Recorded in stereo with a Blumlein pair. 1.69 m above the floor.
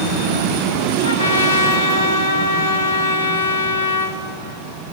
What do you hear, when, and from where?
1.0 s a trumpet: 70° left, 2 m